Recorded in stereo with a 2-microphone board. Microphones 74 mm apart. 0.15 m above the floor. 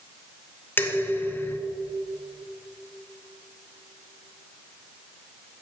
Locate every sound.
0.8 s dishes clattering: 30° left (ahead or behind), 0.8 m